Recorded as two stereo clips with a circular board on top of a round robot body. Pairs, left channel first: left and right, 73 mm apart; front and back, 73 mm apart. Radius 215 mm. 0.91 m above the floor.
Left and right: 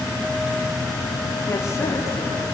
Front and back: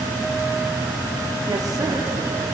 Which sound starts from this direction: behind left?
A woman speaking, at 1.5 s.